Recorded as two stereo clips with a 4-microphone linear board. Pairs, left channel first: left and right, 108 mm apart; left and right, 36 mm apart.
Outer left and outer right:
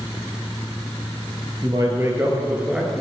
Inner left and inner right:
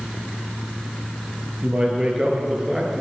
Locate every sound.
1.6 s a man speaking: 35° right (ahead or behind), 2.5 m; by 3.0 s centre (ahead or behind), 1.8 m